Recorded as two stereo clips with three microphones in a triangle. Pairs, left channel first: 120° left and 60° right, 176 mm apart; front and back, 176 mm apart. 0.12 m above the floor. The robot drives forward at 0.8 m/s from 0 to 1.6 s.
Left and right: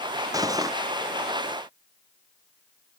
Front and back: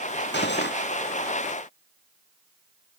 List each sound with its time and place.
0.3 s cutlery clinking: 10° left